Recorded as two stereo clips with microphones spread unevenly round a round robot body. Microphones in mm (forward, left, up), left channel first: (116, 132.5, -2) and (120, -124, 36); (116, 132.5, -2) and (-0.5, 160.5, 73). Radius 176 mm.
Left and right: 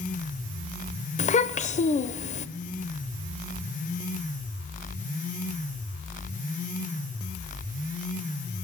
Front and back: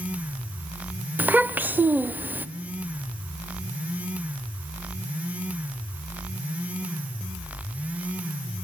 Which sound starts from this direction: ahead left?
A child speaking, at 1.2 s.